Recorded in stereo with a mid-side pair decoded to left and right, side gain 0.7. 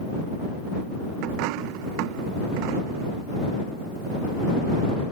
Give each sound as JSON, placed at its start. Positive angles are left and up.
{"t": 1.2, "sound": "a dropped coin", "azimuth_deg": -70}